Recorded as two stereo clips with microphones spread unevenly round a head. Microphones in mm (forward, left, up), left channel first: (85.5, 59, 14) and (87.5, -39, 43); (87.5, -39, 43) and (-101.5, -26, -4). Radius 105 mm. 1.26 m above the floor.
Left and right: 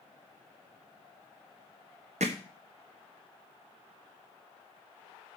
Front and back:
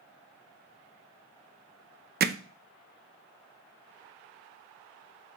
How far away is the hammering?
About 0.8 m.